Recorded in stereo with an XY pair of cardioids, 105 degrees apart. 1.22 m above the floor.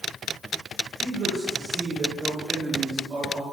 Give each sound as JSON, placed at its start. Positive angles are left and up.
{"t": 1.0, "sound": "a man speaking", "azimuth_deg": -55, "distance_m": 4.0}